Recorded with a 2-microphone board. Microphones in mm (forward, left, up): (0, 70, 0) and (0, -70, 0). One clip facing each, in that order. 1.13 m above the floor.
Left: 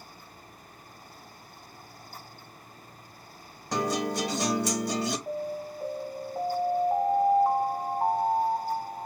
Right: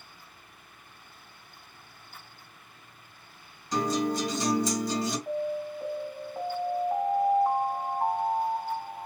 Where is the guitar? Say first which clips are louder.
Right 1 dB; 70° left (ahead or behind), 1.9 m.